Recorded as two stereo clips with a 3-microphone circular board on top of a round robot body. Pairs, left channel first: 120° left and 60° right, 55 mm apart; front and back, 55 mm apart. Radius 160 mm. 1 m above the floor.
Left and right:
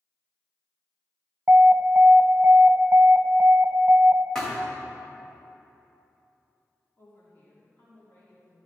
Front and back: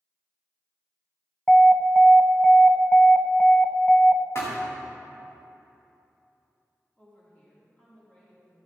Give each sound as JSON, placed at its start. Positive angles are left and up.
{"t": 1.5, "sound": "an alarm", "azimuth_deg": -70, "distance_m": 0.9}
{"t": 4.3, "sound": "a thud", "azimuth_deg": 40, "distance_m": 2.0}
{"t": 7.0, "sound": "a woman speaking", "azimuth_deg": 70, "distance_m": 3.0}